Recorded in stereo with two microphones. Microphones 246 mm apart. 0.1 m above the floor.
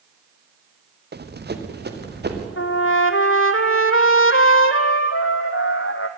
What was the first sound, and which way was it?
Running footsteps, 40° right (ahead or behind).